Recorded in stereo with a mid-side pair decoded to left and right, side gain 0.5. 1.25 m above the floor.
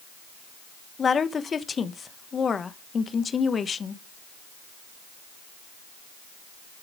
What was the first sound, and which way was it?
A woman speaking, 35° left.